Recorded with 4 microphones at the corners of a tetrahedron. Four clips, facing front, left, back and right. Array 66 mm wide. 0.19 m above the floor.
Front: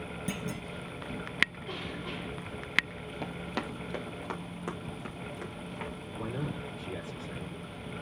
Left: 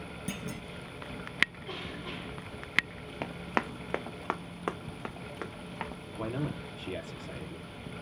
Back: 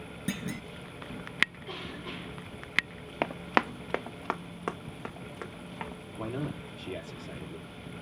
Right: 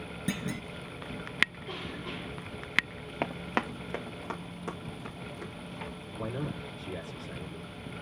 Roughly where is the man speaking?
Behind left.